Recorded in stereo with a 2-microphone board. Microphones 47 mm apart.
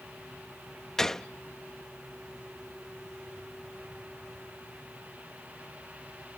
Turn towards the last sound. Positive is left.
turn(degrees=10)  # may be behind; listen again after turning